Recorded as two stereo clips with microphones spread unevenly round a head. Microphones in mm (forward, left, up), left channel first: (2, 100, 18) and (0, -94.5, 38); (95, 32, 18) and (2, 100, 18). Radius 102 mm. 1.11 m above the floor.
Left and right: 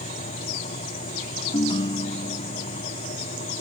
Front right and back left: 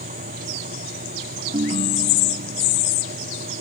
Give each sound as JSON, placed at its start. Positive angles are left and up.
{"t": 0.0, "sound": "a fan", "azimuth_deg": 145}
{"t": 1.5, "sound": "a ringtone", "azimuth_deg": 155}